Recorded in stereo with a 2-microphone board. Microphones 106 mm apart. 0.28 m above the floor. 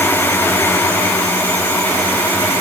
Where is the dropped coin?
No dropped coin in this recording.